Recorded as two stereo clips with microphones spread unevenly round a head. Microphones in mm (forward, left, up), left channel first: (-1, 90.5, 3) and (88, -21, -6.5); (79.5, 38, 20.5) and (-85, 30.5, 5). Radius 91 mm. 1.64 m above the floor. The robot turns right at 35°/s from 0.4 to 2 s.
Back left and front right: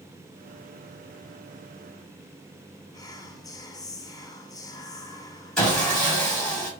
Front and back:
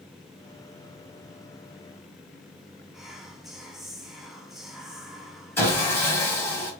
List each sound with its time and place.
2.9 s whispering: 90° left, 0.5 m
5.6 s sawing: 60° left, 1.6 m